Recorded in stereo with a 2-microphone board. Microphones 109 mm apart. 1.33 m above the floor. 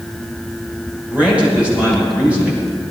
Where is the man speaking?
10° right (ahead or behind), 6 m.